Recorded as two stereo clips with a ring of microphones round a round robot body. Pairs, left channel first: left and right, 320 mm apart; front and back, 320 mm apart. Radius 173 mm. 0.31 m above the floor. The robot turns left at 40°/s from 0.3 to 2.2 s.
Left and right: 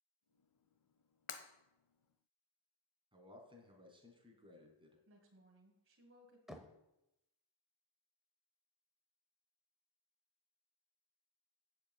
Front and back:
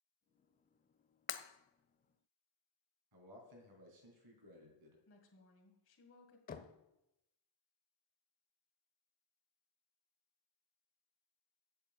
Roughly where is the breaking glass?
Ahead left.